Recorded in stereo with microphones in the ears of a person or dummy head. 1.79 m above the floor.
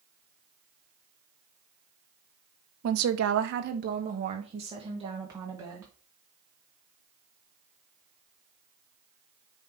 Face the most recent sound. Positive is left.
turn(degrees=-20)  # may be behind; listen again after turning